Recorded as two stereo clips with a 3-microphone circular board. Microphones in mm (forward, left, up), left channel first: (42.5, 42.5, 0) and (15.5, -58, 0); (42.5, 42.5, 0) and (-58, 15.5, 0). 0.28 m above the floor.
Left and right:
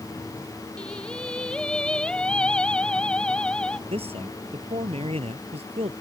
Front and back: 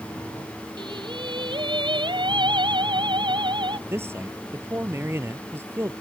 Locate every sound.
0.8 s singing: 155° left
3.7 s a man speaking: 100° right